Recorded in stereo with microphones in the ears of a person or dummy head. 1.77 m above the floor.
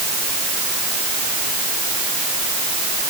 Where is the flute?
I don't hear a flute.